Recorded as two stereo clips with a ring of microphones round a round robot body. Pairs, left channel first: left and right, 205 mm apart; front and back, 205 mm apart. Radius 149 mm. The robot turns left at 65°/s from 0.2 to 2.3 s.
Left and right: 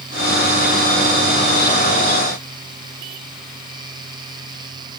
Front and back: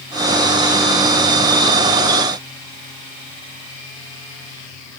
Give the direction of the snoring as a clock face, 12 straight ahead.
No snoring in this recording.